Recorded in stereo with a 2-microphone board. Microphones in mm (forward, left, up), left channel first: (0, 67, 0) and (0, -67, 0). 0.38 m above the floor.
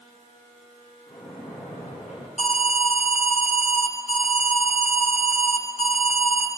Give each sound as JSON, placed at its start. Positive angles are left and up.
{"t": 1.1, "sound": "a splash", "side_deg": 60, "distance_m": 9.0}
{"t": 2.4, "sound": "an alarm", "side_deg": 60, "distance_m": 2.5}